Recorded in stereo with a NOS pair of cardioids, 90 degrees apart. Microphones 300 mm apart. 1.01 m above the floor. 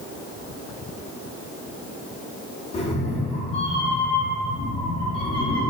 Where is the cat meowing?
20° left, 1.2 m.